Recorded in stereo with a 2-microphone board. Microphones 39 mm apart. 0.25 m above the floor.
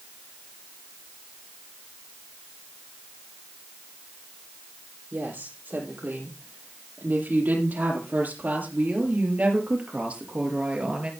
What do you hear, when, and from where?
5.1 s a woman speaking: 55° right (ahead or behind), 7.5 m; by 11.1 s 25° right (ahead or behind), 4 m